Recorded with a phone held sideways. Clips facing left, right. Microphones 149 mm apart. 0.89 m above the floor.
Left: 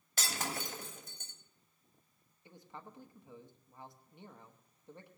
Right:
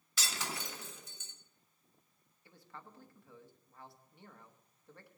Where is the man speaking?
20° left (ahead or behind), 1.0 m.